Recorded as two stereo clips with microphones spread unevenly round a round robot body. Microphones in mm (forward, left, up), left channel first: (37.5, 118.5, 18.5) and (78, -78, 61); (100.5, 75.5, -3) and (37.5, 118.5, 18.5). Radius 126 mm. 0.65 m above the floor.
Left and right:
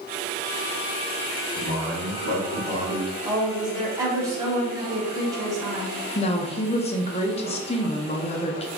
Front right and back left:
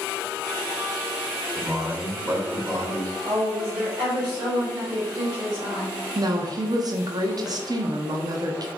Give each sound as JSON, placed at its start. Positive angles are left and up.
{"t": 1.6, "sound": "a man speaking", "azimuth_deg": 90, "distance_m": 2.5}
{"t": 3.2, "sound": "a woman speaking", "azimuth_deg": -160, "distance_m": 1.4}
{"t": 6.2, "sound": "a woman speaking", "azimuth_deg": 115, "distance_m": 0.7}